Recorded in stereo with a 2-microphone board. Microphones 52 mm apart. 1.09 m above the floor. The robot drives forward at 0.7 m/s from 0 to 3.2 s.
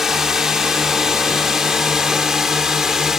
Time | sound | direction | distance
0.0 | a drone | 5° right (ahead or behind) | ?